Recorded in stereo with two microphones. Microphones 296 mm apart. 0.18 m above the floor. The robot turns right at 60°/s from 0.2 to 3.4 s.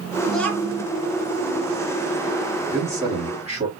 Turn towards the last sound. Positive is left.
turn(degrees=-25)  # may be behind; listen again after turning